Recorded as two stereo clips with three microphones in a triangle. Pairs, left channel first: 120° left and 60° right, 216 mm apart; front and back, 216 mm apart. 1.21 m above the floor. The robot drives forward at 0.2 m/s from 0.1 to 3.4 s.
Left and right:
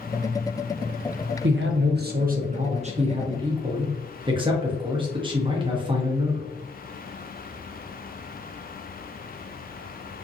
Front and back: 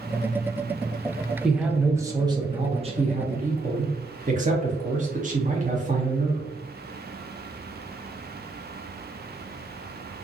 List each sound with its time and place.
1.4 s a man speaking: 95° right, 0.5 m; by 6.5 s 130° right, 0.7 m